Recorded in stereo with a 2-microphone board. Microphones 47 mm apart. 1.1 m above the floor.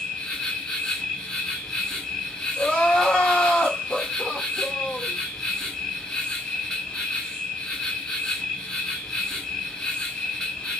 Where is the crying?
25° left (ahead or behind), 1.2 m.